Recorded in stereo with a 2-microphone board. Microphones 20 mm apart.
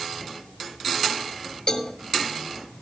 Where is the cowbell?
40° left (ahead or behind), 2.5 m.